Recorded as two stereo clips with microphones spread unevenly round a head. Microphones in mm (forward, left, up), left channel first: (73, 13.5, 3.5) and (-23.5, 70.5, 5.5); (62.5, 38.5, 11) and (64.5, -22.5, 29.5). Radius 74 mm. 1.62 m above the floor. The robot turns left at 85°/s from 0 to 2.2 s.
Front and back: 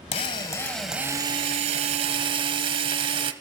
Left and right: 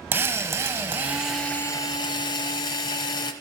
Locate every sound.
0.1 s a drill: 60° right, 0.6 m; by 3.3 s 120° left, 0.6 m